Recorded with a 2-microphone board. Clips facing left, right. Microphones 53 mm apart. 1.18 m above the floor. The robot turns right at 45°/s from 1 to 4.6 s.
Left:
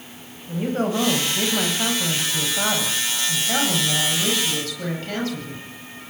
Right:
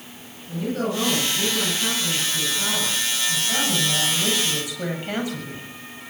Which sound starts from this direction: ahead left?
A woman speaking, at 0.5 s.